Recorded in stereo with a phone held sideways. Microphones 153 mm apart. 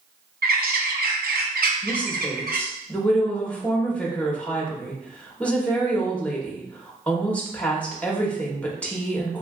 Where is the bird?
75° right (ahead or behind), 0.5 m.